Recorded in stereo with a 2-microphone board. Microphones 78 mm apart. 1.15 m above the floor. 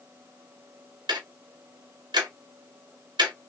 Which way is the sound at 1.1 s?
75° right (ahead or behind).